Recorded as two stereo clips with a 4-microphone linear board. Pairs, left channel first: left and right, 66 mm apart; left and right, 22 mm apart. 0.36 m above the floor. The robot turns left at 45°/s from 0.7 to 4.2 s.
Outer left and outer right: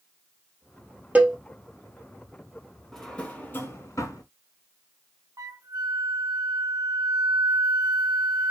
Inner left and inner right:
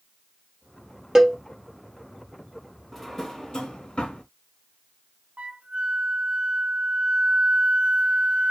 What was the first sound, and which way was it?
A cowbell, 20° right (ahead or behind).